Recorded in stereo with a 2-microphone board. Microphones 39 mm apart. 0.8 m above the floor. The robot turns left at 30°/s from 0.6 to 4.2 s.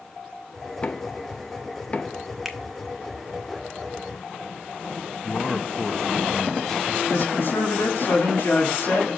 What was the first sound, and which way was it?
Knocking, 30° left (ahead or behind).